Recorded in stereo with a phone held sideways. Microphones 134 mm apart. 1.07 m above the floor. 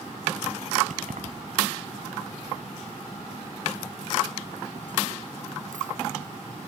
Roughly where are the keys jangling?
Right.